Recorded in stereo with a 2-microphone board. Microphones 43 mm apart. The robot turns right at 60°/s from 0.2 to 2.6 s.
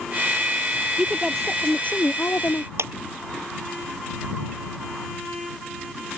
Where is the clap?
80° right.